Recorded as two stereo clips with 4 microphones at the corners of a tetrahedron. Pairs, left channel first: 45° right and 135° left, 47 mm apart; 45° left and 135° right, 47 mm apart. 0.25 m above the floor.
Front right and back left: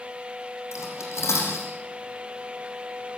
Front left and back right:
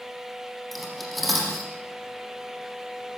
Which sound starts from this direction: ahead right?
Cutlery clinking, at 0.7 s.